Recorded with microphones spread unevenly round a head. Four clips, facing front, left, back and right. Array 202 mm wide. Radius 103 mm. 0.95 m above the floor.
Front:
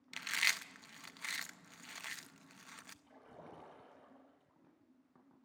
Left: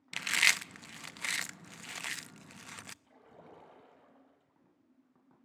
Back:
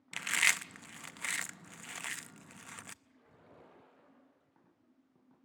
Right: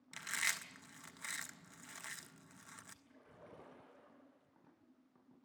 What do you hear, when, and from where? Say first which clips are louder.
0.1 s chewing: left 10 dB, back 5 dB; 125° left, 0.6 m
3.0 s a splash: left 4 dB, front 6 dB; 40° left, 9.5 m